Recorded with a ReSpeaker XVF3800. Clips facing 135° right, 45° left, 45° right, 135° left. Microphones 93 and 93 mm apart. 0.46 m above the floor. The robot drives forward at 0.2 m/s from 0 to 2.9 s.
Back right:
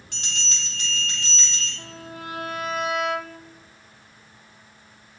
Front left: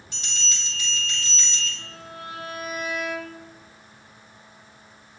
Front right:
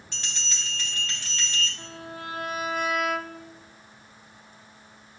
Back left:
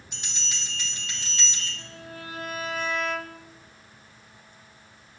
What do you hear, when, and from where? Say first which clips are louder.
0.1 s a bell: back right 1 dB, front right 2 dB; 150° right, 4 m
1.8 s a violin: back right 2 dB, front right 3 dB; 105° right, 0.6 m; by 3.4 s 125° right, 0.7 m